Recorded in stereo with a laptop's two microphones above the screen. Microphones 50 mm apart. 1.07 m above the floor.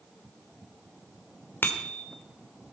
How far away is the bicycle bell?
About 2.5 m.